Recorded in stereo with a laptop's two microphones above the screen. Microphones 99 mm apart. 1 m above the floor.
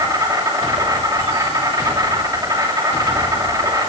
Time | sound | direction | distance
0.0 | an insect | 40° right (ahead or behind) | 2.5 m